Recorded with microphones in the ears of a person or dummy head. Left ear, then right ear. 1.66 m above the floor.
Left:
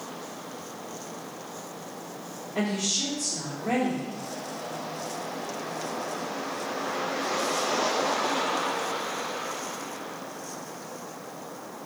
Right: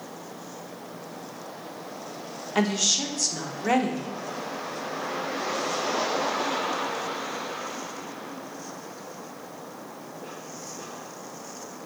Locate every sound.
2.5 s a woman speaking: 60° right (ahead or behind), 0.6 m